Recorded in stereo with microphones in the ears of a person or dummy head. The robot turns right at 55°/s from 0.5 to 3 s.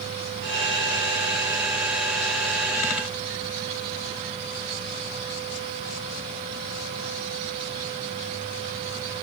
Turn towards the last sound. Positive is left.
No sound to turn to.